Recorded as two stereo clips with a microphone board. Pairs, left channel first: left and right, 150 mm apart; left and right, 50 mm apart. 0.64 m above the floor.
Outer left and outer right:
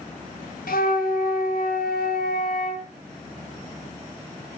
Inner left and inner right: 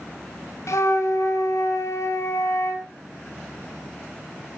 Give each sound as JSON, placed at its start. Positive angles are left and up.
{"t": 0.7, "sound": "a flute", "side_deg": 70, "distance_m": 2.5}